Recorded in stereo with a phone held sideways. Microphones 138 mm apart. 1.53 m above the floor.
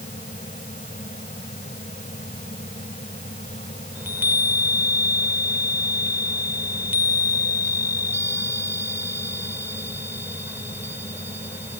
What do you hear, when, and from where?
0.0 s a fan: 65° left (ahead or behind)
4.0 s a chime: 15° right (ahead or behind)